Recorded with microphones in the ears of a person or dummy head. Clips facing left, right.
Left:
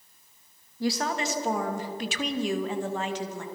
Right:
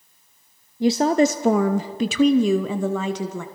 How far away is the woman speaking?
About 0.6 m.